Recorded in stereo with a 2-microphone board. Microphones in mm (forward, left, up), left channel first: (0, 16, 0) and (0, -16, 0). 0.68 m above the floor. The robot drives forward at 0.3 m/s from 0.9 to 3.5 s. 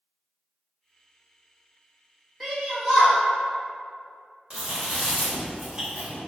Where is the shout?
Centre (ahead or behind), 1.2 m.